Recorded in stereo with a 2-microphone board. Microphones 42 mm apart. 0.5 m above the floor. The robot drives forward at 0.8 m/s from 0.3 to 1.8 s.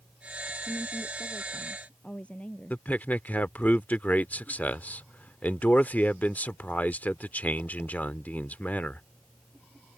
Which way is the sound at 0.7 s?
35° left (ahead or behind).